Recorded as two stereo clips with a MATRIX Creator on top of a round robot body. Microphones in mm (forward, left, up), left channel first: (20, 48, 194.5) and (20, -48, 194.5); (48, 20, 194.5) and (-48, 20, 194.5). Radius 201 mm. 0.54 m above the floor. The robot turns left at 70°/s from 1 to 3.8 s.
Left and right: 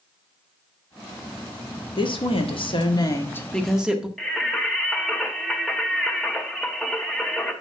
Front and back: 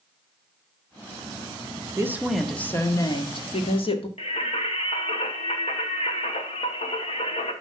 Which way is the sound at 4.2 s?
5° left.